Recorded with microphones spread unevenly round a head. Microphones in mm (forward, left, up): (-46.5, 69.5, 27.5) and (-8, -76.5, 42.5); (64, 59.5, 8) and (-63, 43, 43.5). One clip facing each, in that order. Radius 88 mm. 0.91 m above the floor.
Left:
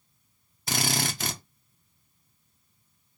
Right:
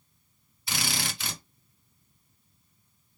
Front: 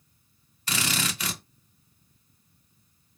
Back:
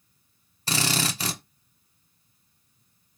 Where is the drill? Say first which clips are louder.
Left 5 dB, back 3 dB; 150° left, 0.6 m.